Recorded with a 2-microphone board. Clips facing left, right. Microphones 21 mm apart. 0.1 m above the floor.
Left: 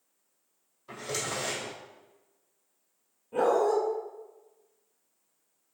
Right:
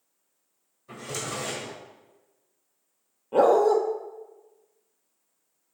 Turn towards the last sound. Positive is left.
turn(degrees=-55)  # may be behind; listen again after turning